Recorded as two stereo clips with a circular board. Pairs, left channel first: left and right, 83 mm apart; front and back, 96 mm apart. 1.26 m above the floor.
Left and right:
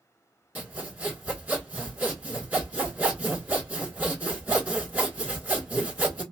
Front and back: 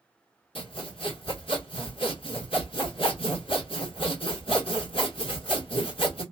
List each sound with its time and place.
0.6 s sawing: 20° right, 1.8 m